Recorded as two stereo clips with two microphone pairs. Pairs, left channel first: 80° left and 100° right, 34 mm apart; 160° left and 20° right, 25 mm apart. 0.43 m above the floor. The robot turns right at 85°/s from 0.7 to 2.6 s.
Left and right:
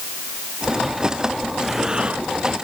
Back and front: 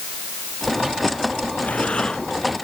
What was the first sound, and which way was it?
Breathing, 175° left.